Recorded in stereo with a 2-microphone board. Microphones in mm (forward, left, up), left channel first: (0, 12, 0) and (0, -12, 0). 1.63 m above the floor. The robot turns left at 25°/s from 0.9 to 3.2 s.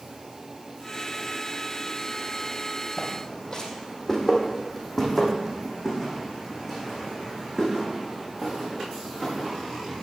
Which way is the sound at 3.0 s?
25° left (ahead or behind).